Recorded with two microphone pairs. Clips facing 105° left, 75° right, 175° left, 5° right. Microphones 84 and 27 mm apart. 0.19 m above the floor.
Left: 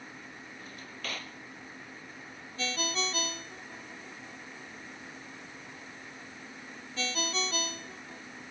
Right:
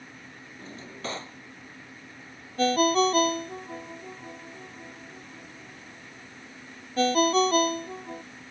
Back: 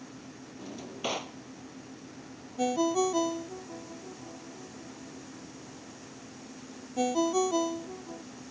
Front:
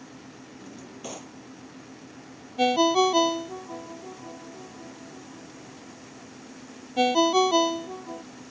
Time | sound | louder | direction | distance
0.6 | a drawer | right 7 dB, back 6 dB | 140° right | ?
2.6 | a ringtone | right 13 dB, front 7 dB | 35° right | ?